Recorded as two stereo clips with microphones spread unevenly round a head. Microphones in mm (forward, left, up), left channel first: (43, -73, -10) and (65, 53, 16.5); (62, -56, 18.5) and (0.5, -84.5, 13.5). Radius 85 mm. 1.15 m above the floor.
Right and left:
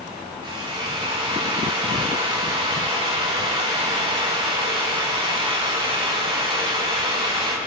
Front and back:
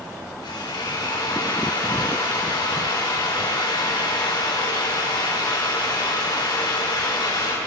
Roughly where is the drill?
Ahead left.